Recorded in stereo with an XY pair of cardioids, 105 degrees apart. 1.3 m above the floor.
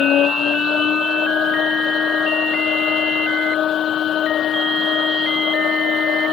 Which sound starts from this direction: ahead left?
A machine running, at 0.0 s.